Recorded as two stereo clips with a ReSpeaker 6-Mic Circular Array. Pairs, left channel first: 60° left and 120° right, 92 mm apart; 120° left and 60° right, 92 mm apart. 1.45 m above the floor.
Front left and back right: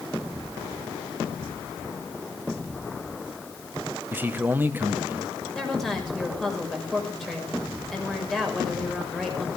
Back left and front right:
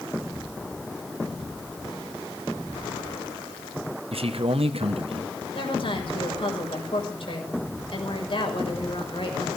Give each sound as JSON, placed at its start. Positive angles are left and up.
{"t": 4.1, "sound": "a man speaking", "azimuth_deg": -50, "distance_m": 1.3}
{"t": 5.5, "sound": "a woman speaking", "azimuth_deg": 145, "distance_m": 6.0}